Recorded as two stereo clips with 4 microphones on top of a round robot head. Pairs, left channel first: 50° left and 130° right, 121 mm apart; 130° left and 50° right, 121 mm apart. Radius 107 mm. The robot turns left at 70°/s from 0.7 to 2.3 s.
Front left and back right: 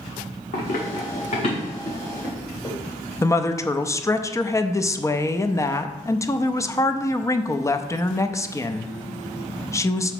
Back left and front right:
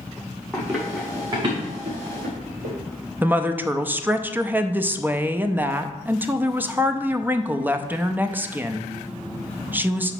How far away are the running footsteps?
About 3 m.